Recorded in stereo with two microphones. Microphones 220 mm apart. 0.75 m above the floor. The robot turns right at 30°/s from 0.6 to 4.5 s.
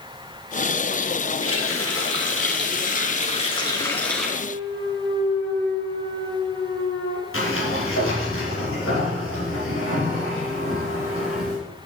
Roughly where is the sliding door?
Left.